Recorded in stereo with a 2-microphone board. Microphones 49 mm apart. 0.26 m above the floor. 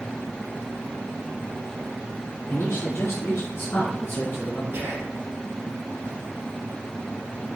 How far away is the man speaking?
About 3.5 m.